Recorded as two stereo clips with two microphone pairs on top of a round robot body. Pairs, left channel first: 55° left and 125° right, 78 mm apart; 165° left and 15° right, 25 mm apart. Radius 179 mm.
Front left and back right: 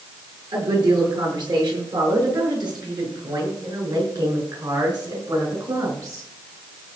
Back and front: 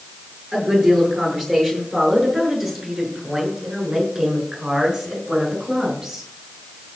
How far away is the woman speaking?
About 8.5 m.